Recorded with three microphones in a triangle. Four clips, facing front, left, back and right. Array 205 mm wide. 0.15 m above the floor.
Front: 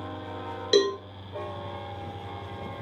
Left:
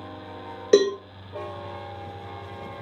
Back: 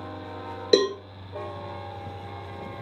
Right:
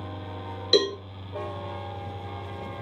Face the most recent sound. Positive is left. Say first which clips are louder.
# left 5 dB, back 2 dB
turn(degrees=125)